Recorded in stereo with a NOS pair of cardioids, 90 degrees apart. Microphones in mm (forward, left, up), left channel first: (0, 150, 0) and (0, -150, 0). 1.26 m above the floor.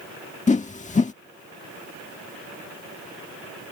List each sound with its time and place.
0.5 s a whoosh: 25° left